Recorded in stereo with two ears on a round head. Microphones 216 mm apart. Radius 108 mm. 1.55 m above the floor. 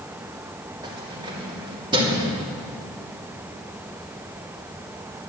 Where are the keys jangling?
20° right (ahead or behind), 2.5 m.